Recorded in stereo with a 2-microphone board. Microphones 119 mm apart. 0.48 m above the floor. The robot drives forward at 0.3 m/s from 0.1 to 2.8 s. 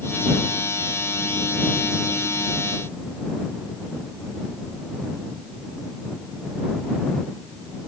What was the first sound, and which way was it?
Only background noise.